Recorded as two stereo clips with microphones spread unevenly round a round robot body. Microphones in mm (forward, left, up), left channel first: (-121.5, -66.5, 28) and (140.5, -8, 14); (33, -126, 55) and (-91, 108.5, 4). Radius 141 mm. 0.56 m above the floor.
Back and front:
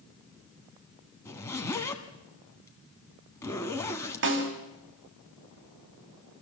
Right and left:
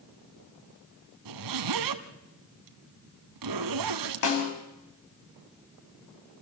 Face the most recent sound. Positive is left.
turn(degrees=-30)